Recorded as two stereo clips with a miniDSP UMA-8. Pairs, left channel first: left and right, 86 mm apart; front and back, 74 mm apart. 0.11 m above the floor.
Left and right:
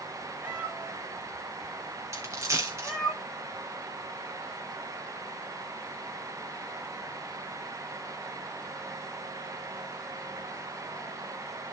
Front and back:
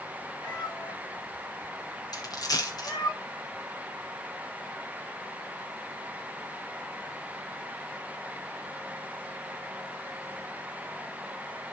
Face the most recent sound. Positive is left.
turn(degrees=-35)